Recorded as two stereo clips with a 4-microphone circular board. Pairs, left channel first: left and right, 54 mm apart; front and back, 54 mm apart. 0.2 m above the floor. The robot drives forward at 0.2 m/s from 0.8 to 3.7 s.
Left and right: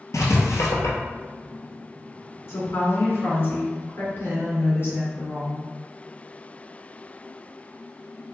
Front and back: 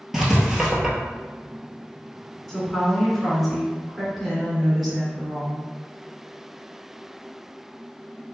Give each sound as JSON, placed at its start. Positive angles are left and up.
{"t": 0.1, "sound": "writing", "azimuth_deg": 95, "distance_m": 1.0}
{"t": 2.5, "sound": "a woman speaking", "azimuth_deg": 90, "distance_m": 2.0}